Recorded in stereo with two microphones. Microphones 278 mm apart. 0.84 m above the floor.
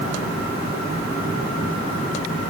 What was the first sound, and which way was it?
Only background noise.